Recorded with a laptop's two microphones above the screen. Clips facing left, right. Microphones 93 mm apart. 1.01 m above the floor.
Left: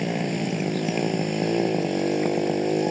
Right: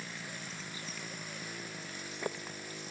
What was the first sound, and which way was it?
A motorcycle, 70° left (ahead or behind).